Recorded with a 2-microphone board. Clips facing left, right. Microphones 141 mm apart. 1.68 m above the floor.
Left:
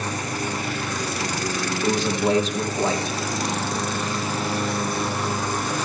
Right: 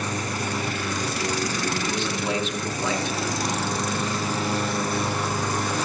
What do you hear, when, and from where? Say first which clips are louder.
1.8 s a man speaking: left 5 dB; 40° left (ahead or behind), 0.8 m